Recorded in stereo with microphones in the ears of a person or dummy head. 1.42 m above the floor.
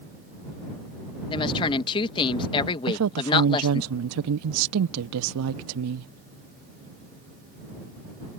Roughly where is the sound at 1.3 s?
Left.